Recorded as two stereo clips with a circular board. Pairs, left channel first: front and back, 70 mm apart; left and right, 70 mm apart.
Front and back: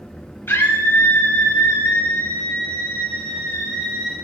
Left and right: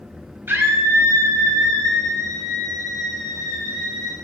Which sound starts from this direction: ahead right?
A scream, at 0.5 s.